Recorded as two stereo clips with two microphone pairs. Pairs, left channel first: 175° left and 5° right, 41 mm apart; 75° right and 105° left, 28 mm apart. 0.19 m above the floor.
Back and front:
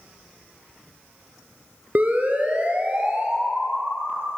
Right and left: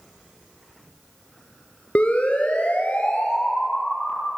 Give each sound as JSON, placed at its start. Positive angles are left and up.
{"t": 1.9, "sound": "a siren", "azimuth_deg": -55, "distance_m": 3.0}